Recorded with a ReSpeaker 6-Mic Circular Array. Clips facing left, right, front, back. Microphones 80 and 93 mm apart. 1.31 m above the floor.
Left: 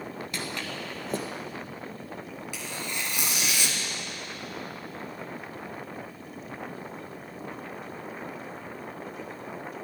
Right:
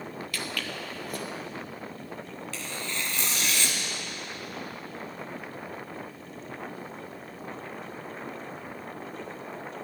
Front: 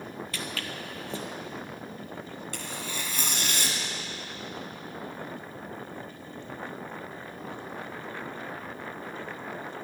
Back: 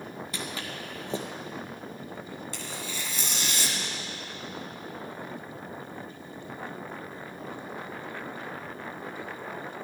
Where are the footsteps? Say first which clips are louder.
Even, back 1 dB; 125° left, 1.5 m.